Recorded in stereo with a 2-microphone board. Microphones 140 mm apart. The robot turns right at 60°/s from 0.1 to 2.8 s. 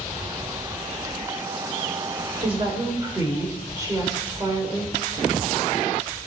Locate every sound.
2.4 s a woman speaking: 45° right (ahead or behind), 3.5 m; by 5.0 s 20° right (ahead or behind), 3.5 m